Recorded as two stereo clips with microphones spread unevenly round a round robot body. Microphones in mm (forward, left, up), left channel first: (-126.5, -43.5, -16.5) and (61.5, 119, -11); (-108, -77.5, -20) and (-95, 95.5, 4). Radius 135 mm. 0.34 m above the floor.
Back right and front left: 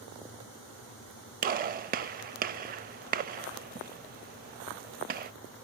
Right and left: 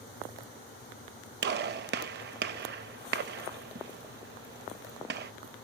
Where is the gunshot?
90° left, 0.6 m.